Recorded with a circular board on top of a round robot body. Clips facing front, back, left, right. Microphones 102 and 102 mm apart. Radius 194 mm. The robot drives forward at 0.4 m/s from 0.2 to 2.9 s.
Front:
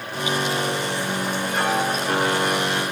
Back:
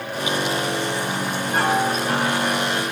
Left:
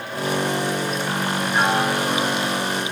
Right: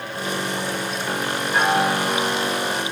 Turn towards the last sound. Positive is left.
turn(degrees=-130)